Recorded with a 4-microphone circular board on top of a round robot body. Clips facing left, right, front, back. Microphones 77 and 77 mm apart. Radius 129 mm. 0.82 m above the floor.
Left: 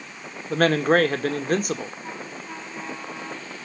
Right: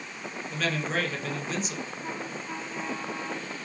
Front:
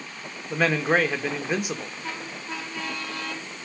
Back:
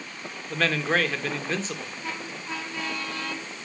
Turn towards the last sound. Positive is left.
turn(degrees=75)